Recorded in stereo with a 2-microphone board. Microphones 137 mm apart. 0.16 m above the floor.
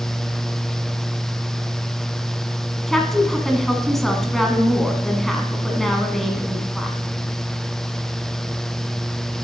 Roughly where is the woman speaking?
Centre.